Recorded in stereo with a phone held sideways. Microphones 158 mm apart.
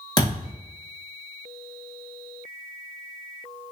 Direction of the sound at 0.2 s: 25° left (ahead or behind).